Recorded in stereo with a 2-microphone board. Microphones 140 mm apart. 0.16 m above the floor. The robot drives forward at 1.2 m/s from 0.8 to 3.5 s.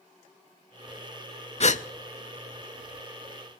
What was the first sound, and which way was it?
A gasp, 50° left (ahead or behind).